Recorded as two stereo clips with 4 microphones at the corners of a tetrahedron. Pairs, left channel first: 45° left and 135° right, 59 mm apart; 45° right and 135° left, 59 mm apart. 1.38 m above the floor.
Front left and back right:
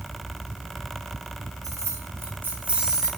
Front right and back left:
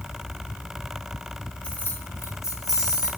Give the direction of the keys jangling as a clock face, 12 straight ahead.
4 o'clock.